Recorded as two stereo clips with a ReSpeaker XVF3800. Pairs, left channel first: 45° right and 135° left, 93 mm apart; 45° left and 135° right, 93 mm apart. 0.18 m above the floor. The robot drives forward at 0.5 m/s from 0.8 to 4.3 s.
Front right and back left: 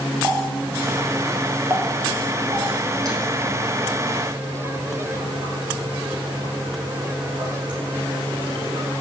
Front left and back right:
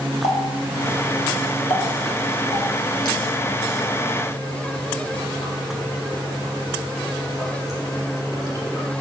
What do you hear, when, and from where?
0.2 s a running tap: 60° left, 2.5 m; by 8.9 s 100° left, 2.5 m